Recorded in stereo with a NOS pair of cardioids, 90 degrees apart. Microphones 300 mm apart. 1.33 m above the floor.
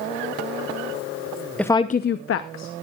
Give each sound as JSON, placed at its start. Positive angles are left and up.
{"t": 1.6, "sound": "a woman speaking", "azimuth_deg": 5, "distance_m": 0.6}